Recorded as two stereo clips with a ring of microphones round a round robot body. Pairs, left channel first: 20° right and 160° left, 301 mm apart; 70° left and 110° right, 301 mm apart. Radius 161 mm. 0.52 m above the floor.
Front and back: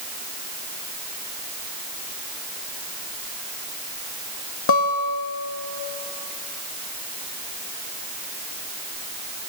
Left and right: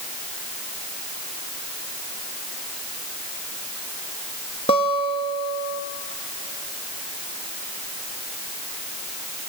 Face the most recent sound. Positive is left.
turn(degrees=-5)